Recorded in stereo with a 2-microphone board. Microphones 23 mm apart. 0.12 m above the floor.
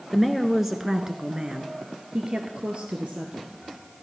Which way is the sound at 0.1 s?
5° left (ahead or behind).